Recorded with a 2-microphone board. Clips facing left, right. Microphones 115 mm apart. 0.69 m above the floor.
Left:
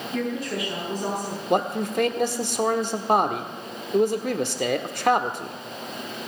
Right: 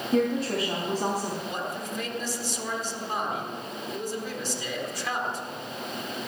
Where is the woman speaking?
55° right (ahead or behind), 4.5 m.